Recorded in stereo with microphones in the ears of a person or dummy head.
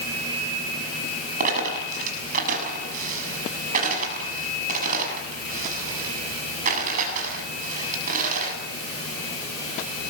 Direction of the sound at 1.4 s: 45° right (ahead or behind).